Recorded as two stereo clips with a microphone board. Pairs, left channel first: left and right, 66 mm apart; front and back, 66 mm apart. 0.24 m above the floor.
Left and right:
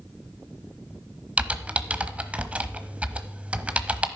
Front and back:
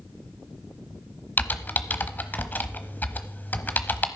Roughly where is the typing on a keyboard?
Ahead right.